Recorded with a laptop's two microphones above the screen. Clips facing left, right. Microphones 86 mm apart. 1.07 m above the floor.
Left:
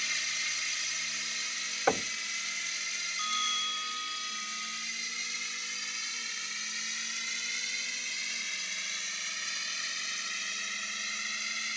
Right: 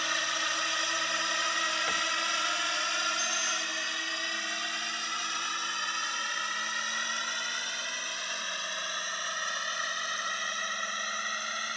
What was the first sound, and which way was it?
A drone, 60° right (ahead or behind).